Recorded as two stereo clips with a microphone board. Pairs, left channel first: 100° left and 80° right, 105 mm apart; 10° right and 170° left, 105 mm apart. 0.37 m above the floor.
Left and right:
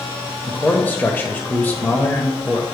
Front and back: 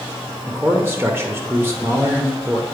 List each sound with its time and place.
0.5 s a man speaking: 140° left, 0.9 m